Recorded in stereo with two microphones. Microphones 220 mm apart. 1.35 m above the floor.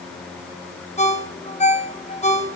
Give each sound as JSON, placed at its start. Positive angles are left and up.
{"t": 1.0, "sound": "a ringtone", "side_deg": 30, "distance_m": 1.3}